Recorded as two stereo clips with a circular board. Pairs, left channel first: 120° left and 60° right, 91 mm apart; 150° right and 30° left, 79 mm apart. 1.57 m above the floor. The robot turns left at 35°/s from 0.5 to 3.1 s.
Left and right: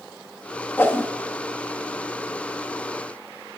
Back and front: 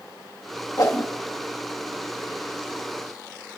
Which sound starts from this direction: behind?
A whoosh, at 0.8 s.